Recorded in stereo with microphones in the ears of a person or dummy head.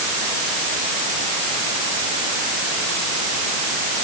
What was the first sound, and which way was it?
Only background noise.